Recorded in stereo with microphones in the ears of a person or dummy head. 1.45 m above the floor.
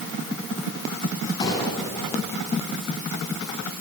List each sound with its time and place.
1.4 s a gunshot: 30° left (ahead or behind), 5.5 m